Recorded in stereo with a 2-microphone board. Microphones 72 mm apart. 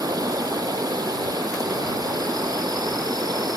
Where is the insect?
65° right (ahead or behind).